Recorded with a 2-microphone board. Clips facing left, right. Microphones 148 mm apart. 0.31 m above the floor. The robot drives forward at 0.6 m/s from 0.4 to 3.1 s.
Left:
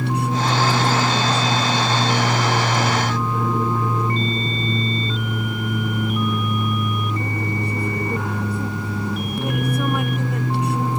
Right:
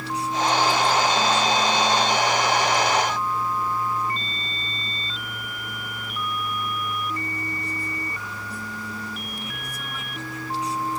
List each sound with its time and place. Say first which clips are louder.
0.0 s an aircraft: left 3 dB; 65° left (ahead or behind)